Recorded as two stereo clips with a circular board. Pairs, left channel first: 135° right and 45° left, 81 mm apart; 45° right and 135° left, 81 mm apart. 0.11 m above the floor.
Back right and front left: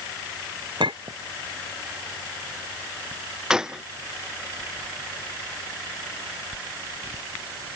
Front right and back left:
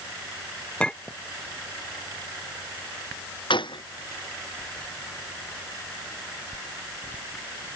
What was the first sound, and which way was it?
A clink, 35° left.